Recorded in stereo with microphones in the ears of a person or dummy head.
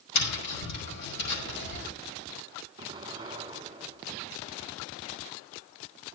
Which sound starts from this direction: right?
An explosion, at 2.8 s.